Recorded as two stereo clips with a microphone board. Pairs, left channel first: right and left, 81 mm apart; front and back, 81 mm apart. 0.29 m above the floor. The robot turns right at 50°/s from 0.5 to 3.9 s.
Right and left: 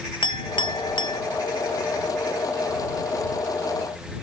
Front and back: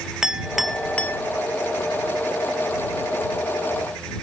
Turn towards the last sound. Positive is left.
turn(degrees=70)